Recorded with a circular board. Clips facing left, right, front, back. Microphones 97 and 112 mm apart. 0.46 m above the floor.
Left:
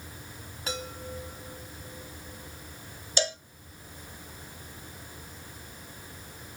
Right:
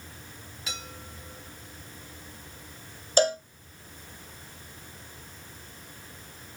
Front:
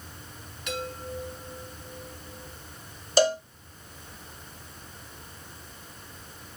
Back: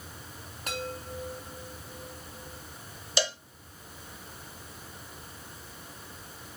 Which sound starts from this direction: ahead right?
A cowbell, at 3.2 s.